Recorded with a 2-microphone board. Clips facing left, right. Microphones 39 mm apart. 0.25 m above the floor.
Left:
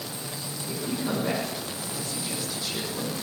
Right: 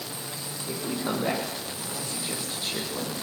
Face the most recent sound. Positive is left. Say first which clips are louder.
# even
turn(degrees=-40)  # may be behind; listen again after turning